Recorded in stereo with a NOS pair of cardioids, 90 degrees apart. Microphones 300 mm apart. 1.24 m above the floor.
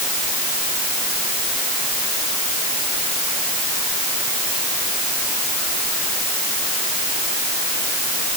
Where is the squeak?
I don't hear a squeak.